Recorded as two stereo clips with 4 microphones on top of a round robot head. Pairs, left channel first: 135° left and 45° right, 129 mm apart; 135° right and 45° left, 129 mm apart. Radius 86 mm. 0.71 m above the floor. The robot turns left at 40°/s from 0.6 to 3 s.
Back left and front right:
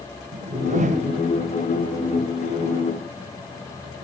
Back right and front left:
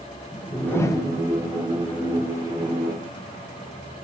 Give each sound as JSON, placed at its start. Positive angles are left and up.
{"t": 0.3, "sound": "a whoosh", "azimuth_deg": -55, "distance_m": 1.3}